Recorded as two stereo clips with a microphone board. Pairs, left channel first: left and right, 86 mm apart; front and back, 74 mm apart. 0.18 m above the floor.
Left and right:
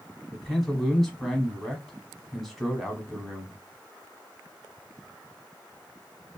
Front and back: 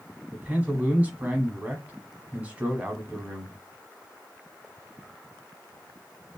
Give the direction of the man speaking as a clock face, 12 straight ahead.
6 o'clock.